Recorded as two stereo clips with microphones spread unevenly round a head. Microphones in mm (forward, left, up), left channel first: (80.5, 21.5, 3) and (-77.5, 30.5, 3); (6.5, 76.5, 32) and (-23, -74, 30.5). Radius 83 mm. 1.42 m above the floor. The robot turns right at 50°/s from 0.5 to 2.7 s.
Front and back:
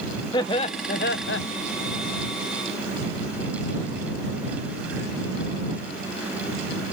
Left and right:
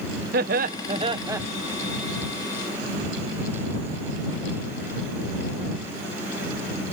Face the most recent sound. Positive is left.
turn(degrees=40)